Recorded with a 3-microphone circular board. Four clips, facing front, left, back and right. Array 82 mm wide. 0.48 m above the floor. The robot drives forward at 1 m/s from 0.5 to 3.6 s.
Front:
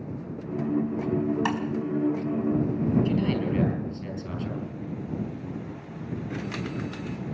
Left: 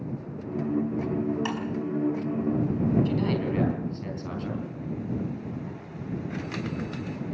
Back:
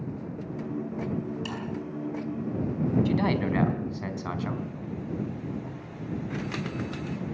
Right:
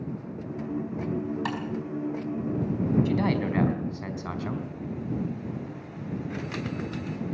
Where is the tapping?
10° right, 4.5 m.